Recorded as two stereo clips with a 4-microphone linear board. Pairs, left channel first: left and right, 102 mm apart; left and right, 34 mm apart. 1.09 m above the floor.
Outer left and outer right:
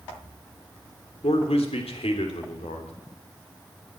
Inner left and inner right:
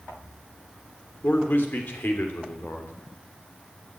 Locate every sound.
1.2 s a man speaking: 80° left, 3 m